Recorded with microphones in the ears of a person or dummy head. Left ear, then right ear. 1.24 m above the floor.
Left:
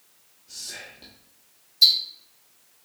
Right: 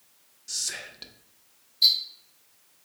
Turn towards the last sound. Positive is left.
turn(degrees=50)  # may be behind; listen again after turning